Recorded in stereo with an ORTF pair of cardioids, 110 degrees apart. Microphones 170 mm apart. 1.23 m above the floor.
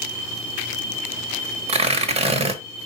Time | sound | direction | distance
1.7 | tearing paper | 40° right | 1.1 m